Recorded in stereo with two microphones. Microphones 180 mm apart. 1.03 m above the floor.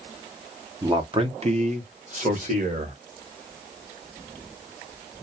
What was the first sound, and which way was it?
A man speaking, 20° right (ahead or behind).